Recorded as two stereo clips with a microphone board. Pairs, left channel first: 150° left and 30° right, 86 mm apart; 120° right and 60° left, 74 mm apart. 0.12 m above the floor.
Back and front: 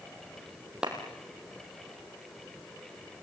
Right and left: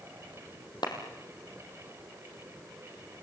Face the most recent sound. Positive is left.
turn(degrees=-110)